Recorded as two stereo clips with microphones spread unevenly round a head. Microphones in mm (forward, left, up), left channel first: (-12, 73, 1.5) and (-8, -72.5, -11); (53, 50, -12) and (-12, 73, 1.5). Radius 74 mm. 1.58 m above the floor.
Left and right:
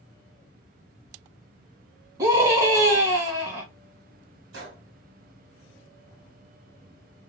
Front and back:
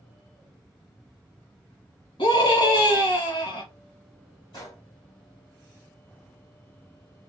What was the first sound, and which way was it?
A scream, 20° right.